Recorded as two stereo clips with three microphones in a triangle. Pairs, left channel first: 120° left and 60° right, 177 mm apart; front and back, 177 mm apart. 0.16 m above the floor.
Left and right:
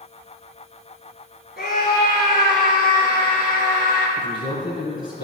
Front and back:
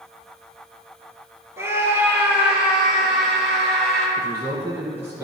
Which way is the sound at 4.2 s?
105° left.